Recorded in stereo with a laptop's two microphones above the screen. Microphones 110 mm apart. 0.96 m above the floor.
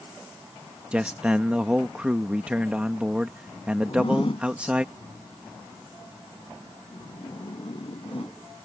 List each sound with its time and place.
0.9 s a man speaking: 10° right (ahead or behind)
3.9 s a zipper: 55° left (ahead or behind)